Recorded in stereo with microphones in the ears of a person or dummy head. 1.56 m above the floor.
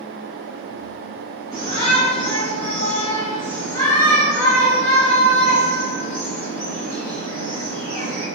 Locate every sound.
1.5 s a shout: 30° left (ahead or behind), 1.8 m; by 8.3 s 90° left, 4 m